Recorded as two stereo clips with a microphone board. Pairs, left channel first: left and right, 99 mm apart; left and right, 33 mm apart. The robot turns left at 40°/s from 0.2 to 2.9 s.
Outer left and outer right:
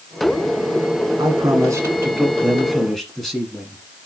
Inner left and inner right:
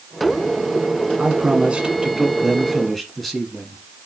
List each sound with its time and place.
1.2 s a man speaking: 115° right, 1.5 m; by 3.8 s 175° left, 1.5 m